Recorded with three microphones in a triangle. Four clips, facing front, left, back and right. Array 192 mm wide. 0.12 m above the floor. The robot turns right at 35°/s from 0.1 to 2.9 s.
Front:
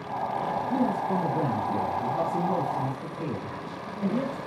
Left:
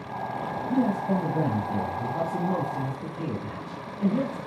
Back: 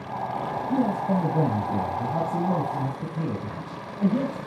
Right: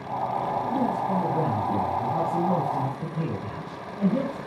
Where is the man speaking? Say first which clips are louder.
Left 4 dB, back 4 dB; 150° left, 3 m; by 4.4 s 130° right, 3 m.